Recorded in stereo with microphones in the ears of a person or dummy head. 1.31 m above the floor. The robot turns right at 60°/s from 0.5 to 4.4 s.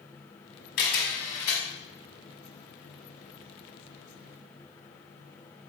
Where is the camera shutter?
50° left (ahead or behind), 1.3 m; by 1.6 s 15° left (ahead or behind), 1.3 m.